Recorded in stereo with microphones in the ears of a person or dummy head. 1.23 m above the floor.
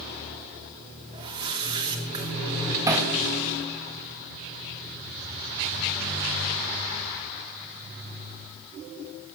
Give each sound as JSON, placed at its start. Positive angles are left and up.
{"t": 1.1, "sound": "a whoosh", "side_deg": -30, "distance_m": 3.0}
{"t": 2.9, "sound": "hammering", "side_deg": -10, "distance_m": 1.1}